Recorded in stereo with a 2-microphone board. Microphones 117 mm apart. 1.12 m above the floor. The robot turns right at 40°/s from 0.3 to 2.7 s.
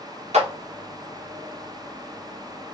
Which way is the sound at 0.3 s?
70° right (ahead or behind).